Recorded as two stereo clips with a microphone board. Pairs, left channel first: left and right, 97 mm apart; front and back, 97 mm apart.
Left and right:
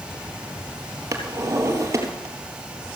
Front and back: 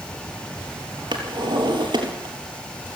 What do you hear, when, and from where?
1.1 s a drawer: 145° right, 3.5 m